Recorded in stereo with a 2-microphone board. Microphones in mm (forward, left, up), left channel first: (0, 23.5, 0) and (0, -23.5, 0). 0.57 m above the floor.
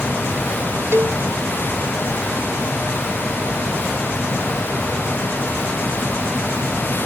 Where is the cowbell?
65° right (ahead or behind).